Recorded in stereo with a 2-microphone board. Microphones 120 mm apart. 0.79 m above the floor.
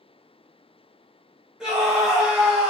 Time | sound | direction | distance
1.6 | a scream | 5° right (ahead or behind) | 1.1 m